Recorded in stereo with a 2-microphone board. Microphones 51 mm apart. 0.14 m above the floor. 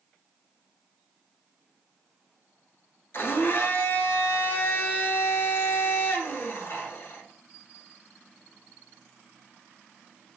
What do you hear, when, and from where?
3.1 s a blender: 55° left (ahead or behind), 0.8 m